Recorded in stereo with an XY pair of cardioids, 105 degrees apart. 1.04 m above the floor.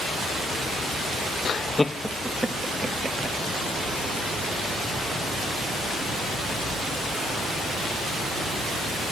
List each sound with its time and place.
1.4 s laughter: 45° left, 0.7 m; by 3.4 s 30° right, 1.9 m